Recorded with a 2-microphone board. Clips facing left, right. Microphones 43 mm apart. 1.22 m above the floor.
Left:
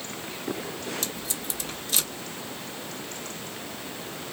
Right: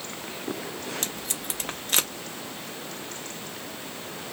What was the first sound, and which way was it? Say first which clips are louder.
Tape being pulled: even; 50° right (ahead or behind).